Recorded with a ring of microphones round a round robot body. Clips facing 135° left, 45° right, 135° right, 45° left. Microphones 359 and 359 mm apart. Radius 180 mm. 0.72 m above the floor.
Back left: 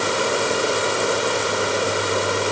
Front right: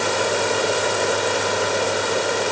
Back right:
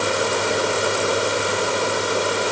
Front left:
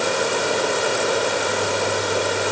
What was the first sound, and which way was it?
Only background noise.